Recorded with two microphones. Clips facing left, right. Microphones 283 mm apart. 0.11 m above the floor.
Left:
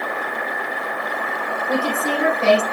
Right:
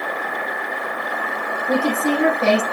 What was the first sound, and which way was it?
A woman speaking, 15° right (ahead or behind).